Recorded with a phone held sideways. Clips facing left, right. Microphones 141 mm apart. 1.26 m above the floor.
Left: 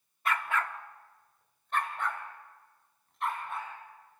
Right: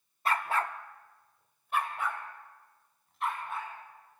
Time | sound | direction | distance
0.2 | a dog barking | 35° right (ahead or behind) | 0.9 m